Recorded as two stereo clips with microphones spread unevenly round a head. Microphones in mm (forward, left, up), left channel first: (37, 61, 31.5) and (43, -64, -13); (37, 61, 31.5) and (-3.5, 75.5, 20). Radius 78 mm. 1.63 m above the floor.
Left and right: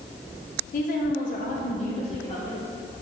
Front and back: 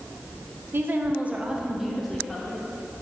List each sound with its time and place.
0.7 s a woman speaking: 120° left, 1.3 m; by 2.7 s 50° left, 1.9 m